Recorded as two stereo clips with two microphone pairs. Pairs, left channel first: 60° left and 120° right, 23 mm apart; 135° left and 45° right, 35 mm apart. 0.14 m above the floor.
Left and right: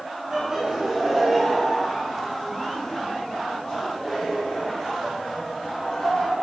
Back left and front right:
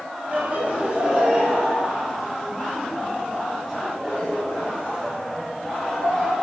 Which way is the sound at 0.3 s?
75° right.